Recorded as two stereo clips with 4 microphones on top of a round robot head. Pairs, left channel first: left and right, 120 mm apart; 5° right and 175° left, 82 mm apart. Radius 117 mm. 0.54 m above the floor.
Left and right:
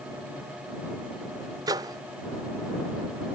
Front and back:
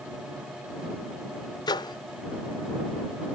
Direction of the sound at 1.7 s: 35° right.